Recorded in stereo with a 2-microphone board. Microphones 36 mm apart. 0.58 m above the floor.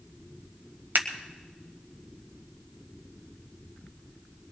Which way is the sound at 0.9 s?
70° right (ahead or behind).